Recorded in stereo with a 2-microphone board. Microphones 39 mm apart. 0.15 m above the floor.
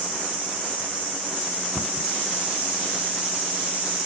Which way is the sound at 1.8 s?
15° right (ahead or behind).